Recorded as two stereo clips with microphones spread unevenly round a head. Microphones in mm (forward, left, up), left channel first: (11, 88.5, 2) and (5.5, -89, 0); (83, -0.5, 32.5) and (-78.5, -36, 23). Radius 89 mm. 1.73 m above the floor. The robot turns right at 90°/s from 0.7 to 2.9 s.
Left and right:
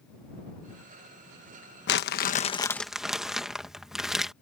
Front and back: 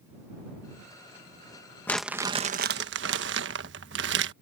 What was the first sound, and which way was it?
Crumpling, 90° left.